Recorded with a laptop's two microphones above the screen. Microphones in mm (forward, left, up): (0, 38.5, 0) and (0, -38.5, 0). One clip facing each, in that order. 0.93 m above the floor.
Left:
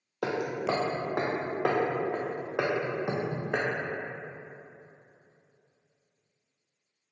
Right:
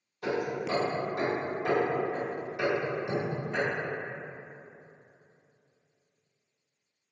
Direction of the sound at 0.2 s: 75° left (ahead or behind).